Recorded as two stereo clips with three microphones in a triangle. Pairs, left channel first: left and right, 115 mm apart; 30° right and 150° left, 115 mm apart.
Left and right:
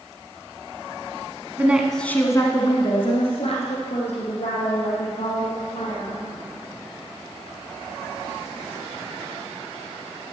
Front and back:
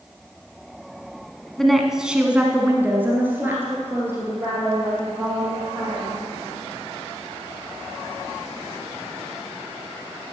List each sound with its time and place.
1.6 s a woman speaking: 110° right, 1.0 m; by 6.4 s 80° left, 5 m